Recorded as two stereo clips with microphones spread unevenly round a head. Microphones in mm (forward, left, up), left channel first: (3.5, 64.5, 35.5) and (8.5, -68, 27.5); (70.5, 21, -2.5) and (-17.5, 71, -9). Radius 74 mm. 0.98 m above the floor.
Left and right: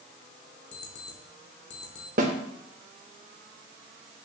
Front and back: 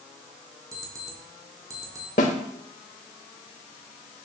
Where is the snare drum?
55° right, 1.6 m.